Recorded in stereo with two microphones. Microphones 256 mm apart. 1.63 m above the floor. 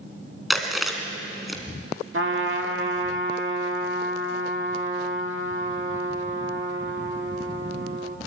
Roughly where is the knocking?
No knocking in this recording.